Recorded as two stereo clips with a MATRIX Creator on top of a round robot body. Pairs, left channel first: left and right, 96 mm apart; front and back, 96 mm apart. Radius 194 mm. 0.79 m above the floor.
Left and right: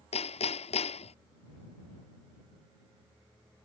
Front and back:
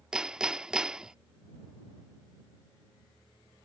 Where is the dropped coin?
No dropped coin in this recording.